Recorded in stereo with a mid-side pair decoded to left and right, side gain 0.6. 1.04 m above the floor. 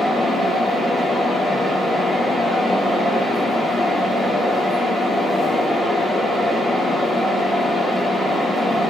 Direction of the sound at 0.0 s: 15° left.